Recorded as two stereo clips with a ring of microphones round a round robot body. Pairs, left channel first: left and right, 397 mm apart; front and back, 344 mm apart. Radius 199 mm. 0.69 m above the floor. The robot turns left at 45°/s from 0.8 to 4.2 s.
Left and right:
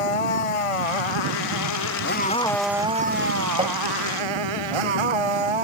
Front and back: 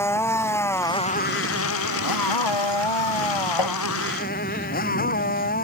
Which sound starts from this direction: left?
A motorcycle, at 0.0 s.